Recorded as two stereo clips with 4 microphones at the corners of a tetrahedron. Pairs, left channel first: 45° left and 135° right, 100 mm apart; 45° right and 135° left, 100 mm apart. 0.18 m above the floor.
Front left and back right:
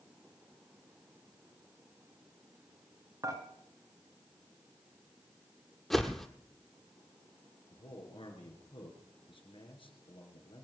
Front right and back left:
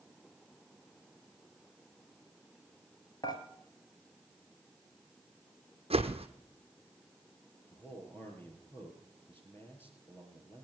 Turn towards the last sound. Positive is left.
turn(degrees=20)